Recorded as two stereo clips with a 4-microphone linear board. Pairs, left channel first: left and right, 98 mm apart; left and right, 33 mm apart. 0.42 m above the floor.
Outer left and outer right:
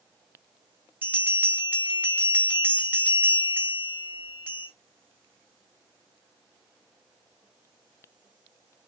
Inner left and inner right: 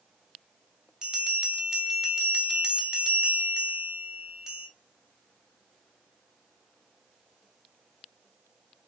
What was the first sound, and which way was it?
A bell, 20° right (ahead or behind).